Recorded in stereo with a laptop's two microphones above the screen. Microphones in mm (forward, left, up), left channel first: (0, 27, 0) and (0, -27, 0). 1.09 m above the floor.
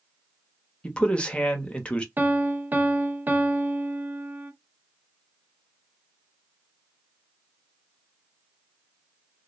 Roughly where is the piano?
Right.